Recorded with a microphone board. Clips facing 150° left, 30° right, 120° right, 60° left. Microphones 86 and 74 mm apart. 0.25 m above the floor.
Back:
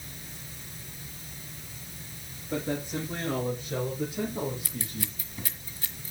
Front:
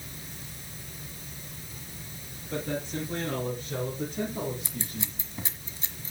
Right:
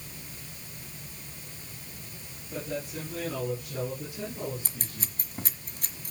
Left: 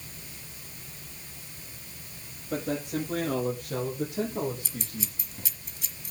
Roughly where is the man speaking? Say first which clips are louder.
Back 1 dB, left 5 dB; left.